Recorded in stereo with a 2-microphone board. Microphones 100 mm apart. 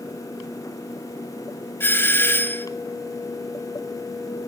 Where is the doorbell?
20° left (ahead or behind), 1.4 m.